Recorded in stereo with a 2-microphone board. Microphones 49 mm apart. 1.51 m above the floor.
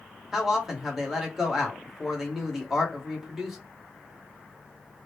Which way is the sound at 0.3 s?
5° right (ahead or behind).